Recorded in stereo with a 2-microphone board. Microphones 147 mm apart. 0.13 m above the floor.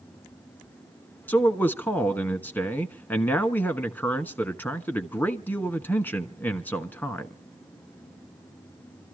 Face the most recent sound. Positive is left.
turn(degrees=10)  # may be behind; listen again after turning